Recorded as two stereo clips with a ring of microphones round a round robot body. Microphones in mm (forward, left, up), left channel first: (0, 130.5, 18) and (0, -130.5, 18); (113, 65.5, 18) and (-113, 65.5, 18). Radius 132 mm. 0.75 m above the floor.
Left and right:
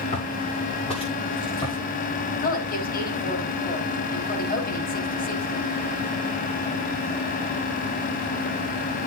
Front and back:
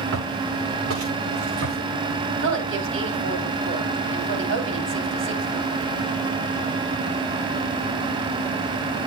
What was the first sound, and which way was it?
Footsteps, 155° left.